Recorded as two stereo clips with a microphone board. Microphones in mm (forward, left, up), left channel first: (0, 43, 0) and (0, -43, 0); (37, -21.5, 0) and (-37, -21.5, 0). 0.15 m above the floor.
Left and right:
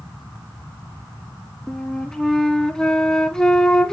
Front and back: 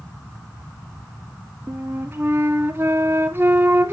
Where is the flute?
170° left, 0.6 m.